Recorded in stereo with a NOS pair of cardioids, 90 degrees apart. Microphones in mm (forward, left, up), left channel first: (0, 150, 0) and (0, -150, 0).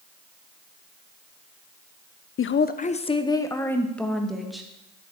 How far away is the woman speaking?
About 0.8 m.